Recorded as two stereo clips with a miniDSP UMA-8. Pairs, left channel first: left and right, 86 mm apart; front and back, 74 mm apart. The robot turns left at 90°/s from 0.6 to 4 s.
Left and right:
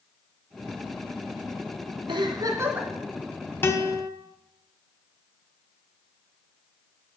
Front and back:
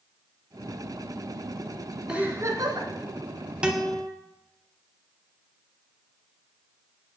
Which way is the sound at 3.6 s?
120° left.